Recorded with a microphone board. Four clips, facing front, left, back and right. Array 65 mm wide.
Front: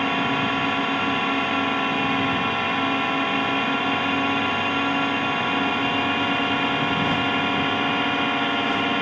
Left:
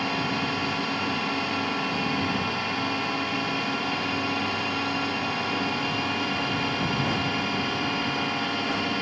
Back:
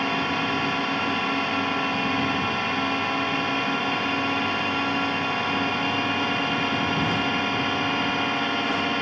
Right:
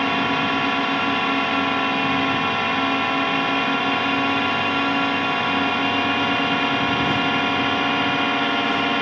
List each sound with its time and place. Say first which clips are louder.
0.0 s a drone: right 7 dB, front 2 dB; 75° right